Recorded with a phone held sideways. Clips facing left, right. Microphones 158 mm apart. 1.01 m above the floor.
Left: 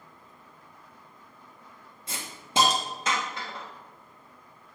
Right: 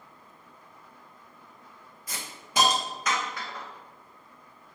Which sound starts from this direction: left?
A hiss, at 2.1 s.